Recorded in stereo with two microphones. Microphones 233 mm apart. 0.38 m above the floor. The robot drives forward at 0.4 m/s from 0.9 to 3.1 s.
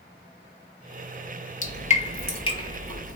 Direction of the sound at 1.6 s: 35° left (ahead or behind).